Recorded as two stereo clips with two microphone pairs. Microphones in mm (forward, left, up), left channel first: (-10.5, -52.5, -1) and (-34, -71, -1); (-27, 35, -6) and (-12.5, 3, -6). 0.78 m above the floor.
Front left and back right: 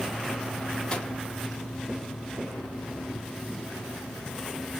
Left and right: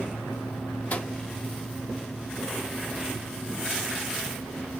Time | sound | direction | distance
0.9 | a microwave | 90° left | 0.7 m